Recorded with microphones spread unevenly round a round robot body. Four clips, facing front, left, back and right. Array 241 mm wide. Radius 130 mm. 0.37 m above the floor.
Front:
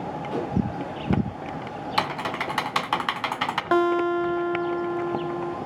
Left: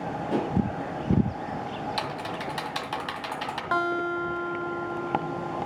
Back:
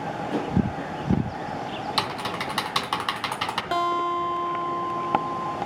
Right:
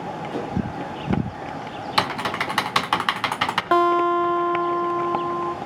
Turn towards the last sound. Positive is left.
turn(degrees=-55)